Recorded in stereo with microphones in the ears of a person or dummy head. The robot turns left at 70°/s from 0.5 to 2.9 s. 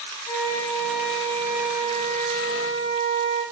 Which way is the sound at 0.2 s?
85° left.